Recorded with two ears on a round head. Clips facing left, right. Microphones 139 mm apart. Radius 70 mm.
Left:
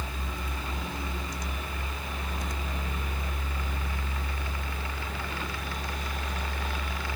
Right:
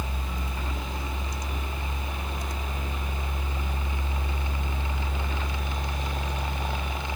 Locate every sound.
Only background noise.